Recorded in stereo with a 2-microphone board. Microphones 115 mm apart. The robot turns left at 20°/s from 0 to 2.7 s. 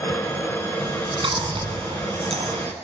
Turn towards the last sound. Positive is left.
turn(degrees=-80)